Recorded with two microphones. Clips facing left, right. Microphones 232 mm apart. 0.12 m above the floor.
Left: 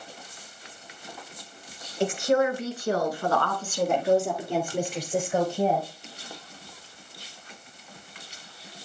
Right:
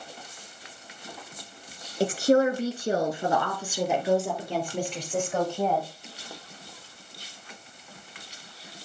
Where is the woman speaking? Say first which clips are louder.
Right 2 dB; 40° right (ahead or behind), 1.7 m; by 5.9 s 15° left (ahead or behind), 2.5 m.